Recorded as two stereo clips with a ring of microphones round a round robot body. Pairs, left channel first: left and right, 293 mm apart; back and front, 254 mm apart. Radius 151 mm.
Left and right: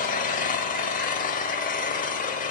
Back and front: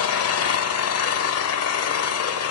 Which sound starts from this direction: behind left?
An engine running, at 0.0 s.